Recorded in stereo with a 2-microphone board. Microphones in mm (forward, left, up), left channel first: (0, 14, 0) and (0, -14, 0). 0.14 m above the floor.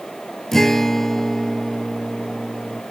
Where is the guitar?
15° left (ahead or behind), 0.7 m.